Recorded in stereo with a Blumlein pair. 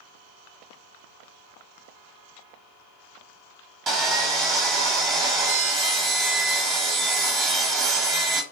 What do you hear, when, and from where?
3.9 s sawing: 30° right, 1.0 m